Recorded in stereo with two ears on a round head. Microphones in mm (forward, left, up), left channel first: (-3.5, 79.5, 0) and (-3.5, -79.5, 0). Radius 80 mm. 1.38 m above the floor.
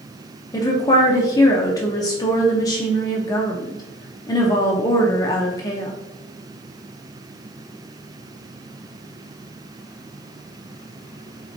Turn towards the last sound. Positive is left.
turn(degrees=20)  # may be behind; listen again after turning